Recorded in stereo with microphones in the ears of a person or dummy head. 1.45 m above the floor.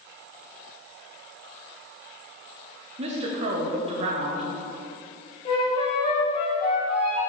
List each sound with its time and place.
3.0 s a woman speaking: 40° right (ahead or behind), 0.9 m
5.5 s a flute: 25° left (ahead or behind), 2 m